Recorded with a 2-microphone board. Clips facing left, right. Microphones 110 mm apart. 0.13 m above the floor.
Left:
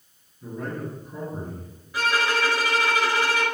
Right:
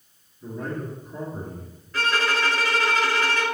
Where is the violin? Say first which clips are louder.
Left 1 dB; 10° left (ahead or behind), 1.0 m.